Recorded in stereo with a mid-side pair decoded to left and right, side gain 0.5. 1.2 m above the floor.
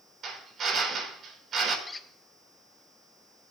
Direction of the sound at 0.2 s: 55° right.